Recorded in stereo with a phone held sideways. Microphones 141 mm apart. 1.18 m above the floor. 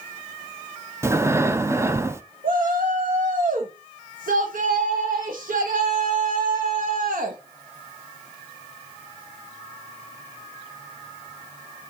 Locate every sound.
1.0 s breathing: 20° right (ahead or behind), 0.6 m
2.4 s a shout: 80° right, 1.1 m